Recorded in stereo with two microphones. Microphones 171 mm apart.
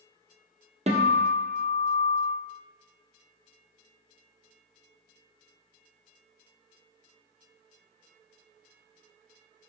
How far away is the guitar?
About 1.5 m.